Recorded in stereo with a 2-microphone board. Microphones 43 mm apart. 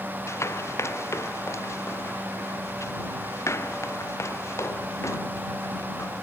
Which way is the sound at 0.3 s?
75° left (ahead or behind).